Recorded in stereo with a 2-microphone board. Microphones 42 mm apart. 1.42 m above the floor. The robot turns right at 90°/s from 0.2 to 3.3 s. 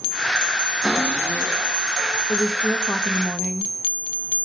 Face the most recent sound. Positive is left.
turn(degrees=170)